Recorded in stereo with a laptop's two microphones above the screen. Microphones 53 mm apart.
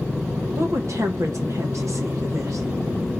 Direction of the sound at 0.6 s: 65° right (ahead or behind).